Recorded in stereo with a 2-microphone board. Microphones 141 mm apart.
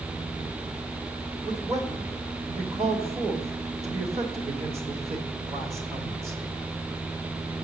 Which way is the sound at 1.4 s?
40° right (ahead or behind).